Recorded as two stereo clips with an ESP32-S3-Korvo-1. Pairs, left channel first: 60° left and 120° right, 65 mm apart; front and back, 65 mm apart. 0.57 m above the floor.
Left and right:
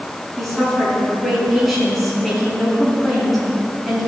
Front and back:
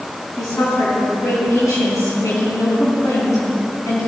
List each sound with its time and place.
0.4 s a woman speaking: 35° right, 5 m